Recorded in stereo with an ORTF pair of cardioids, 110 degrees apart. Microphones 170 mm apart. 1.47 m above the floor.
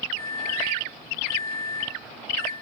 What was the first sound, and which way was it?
A microwave, 15° left.